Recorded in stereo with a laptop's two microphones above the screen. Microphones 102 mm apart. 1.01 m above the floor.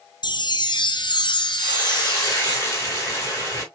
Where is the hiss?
30° left (ahead or behind), 3.5 m.